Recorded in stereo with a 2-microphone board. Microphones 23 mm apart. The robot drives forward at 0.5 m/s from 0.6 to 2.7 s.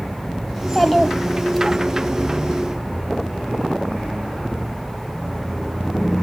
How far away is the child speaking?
About 0.8 m.